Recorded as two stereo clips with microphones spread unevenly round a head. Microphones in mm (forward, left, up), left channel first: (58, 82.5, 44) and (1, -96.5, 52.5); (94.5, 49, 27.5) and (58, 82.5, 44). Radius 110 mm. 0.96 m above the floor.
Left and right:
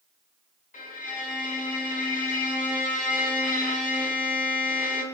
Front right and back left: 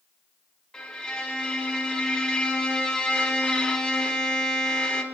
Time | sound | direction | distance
0.7 | a violin | 30° left | 5 m